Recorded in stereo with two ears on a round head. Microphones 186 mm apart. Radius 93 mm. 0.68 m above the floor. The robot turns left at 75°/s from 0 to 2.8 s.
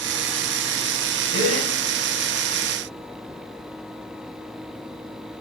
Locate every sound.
1.3 s a gasp: 60° right (ahead or behind), 2.5 m; by 1.7 s 85° right, 2.5 m